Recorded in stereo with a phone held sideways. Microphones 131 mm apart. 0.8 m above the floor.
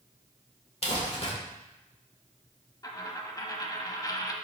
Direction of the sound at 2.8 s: 30° left (ahead or behind).